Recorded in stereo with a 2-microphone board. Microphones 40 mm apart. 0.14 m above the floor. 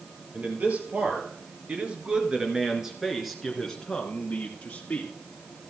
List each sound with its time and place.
0.3 s a man speaking: 40° right (ahead or behind), 3.5 m; by 5.1 s 40° left (ahead or behind), 2.5 m